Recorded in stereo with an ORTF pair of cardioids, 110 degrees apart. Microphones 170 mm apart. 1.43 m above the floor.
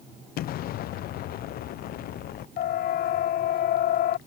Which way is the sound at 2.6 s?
65° left.